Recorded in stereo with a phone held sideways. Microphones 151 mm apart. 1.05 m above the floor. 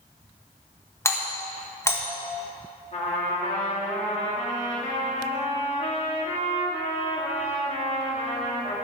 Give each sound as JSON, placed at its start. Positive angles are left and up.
{"t": 1.1, "sound": "a doorbell", "side_deg": 15, "distance_m": 1.5}
{"t": 2.9, "sound": "a trumpet", "side_deg": 45, "distance_m": 2.5}